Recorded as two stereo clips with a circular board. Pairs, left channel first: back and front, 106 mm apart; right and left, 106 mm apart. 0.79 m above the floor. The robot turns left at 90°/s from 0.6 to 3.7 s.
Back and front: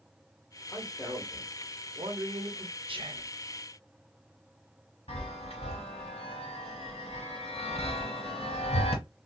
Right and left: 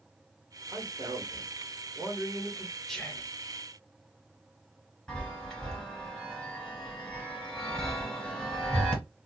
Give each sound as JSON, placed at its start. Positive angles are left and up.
{"t": 0.7, "sound": "a man speaking", "azimuth_deg": 145, "distance_m": 1.4}
{"t": 2.9, "sound": "whispering", "azimuth_deg": 0, "distance_m": 0.9}
{"t": 5.1, "sound": "a chime", "azimuth_deg": -175, "distance_m": 2.0}